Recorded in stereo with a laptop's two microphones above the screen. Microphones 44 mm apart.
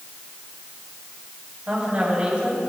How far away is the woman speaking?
About 7 m.